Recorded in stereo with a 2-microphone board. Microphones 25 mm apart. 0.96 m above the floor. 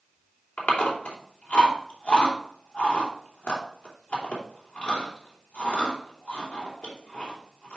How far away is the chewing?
About 3 m.